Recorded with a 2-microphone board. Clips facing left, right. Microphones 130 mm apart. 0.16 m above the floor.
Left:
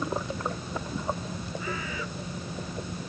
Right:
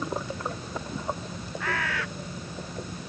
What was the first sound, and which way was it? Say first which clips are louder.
A bird: right 6 dB; 75° right (ahead or behind).